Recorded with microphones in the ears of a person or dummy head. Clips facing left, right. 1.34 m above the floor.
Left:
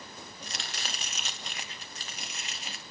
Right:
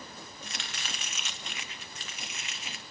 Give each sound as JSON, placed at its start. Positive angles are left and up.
{"t": 0.4, "sound": "chopping", "side_deg": 30, "distance_m": 0.5}